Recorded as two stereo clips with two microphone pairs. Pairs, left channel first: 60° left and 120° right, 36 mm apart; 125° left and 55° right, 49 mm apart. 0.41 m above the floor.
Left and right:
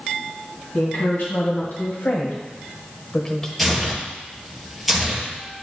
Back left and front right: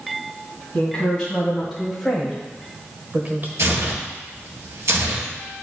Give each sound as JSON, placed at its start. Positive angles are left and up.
{"t": 0.7, "sound": "a woman speaking", "azimuth_deg": 50, "distance_m": 2.5}
{"t": 3.6, "sound": "tearing paper", "azimuth_deg": -35, "distance_m": 1.9}